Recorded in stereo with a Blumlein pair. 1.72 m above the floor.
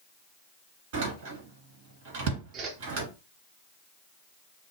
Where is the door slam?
50° right, 1.7 m.